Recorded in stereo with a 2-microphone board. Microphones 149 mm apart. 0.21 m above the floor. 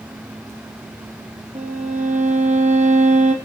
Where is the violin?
50° right (ahead or behind), 1.9 m.